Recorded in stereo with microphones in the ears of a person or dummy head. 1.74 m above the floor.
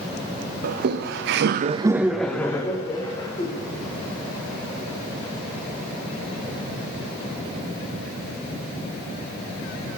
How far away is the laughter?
About 1.1 m.